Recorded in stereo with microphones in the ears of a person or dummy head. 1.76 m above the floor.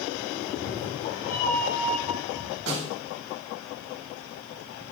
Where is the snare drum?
60° right (ahead or behind), 2.5 m.